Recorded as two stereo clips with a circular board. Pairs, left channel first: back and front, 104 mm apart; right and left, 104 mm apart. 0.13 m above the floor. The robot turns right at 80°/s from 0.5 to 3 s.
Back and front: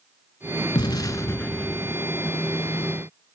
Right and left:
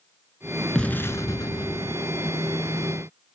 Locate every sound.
0.8 s an explosion: 170° right, 0.6 m; by 2.0 s 70° right, 0.6 m